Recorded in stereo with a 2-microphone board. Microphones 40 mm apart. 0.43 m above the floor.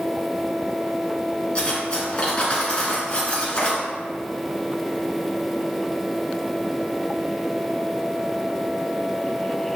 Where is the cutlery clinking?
30° left (ahead or behind), 3 m.